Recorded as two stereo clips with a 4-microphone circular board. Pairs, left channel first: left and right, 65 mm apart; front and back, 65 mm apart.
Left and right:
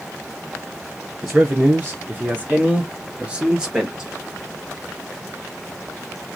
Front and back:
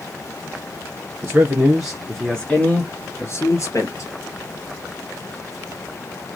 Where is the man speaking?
135° right, 1.5 m; by 4.1 s 10° right, 2 m.